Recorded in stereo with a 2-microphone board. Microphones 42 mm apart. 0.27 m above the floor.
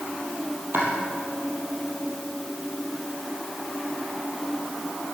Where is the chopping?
55° right (ahead or behind), 4 m.